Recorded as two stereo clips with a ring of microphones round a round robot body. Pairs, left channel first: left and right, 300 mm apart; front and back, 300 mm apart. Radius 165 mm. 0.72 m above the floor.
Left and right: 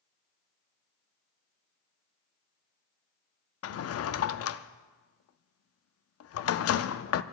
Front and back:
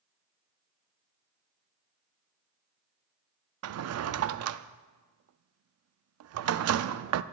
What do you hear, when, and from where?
3.6 s a drawer: 135° left, 0.5 m